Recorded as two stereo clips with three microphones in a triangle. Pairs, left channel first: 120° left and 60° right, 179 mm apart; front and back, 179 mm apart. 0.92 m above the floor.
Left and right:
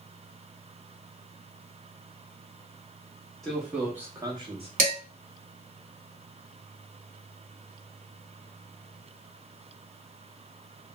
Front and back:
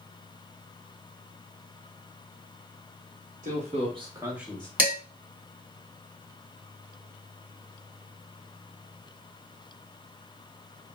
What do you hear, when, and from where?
3.4 s a man speaking: 150° right, 1.4 m; by 4.7 s 75° right, 0.9 m
4.8 s dishes clattering: 100° right, 1.3 m